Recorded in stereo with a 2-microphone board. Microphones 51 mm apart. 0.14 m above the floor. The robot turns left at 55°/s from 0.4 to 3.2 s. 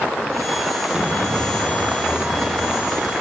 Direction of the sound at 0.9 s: 20° right.